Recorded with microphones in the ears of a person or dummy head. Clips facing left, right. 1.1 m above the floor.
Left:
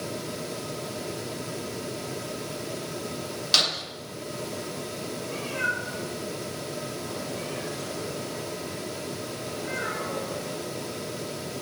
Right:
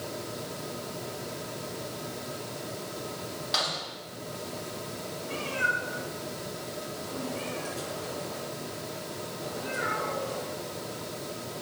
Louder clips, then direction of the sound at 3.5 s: Left 2 dB; 40° left (ahead or behind).